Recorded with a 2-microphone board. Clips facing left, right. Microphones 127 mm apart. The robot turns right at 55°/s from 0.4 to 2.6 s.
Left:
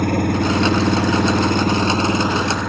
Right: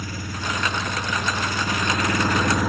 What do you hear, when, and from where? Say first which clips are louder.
0.0 s an engine running: left 14 dB; 60° left; by 2.7 s straight behind